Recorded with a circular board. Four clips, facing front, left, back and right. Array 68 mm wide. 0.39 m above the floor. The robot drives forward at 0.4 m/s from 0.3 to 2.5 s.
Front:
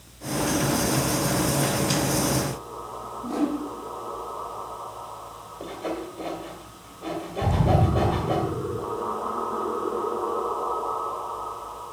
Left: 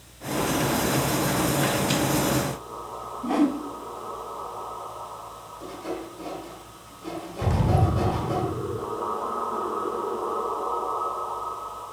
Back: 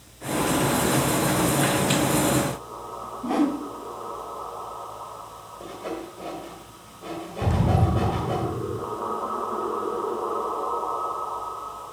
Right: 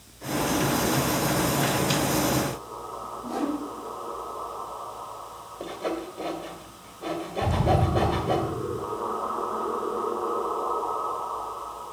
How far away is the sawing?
About 2 m.